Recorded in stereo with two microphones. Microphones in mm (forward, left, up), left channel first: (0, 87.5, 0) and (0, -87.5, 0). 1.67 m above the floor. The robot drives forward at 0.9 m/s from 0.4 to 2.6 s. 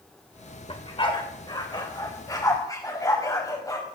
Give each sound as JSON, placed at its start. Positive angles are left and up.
{"t": 0.7, "sound": "a dog barking", "side_deg": 30, "distance_m": 2.5}